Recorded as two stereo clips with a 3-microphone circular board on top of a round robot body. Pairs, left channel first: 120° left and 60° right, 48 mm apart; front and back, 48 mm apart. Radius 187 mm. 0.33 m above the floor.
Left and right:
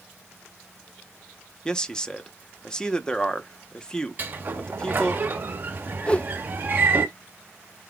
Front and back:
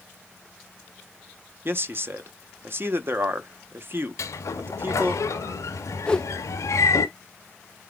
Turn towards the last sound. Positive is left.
turn(degrees=65)